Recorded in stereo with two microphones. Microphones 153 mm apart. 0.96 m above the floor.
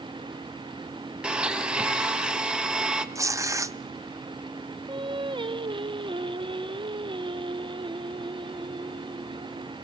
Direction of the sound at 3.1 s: 20° right (ahead or behind).